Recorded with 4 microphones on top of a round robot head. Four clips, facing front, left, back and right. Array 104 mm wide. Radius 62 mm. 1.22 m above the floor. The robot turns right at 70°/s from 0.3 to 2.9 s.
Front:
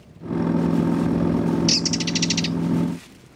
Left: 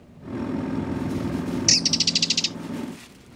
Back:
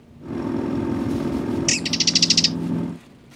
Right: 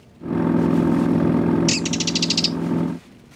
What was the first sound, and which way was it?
A bird, 140° left.